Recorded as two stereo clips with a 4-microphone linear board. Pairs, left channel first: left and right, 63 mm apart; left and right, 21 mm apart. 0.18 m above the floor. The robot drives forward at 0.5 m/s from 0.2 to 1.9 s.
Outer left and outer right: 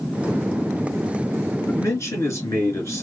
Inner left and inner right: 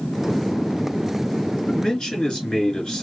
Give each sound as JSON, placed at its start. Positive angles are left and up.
{"t": 1.7, "sound": "a man speaking", "side_deg": 50, "distance_m": 2.0}